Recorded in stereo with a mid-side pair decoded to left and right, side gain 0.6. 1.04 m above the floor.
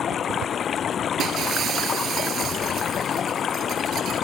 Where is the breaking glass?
50° right.